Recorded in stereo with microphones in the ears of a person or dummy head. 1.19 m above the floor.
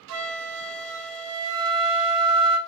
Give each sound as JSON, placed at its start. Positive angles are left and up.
{"t": 0.1, "sound": "a flute", "side_deg": -55, "distance_m": 0.5}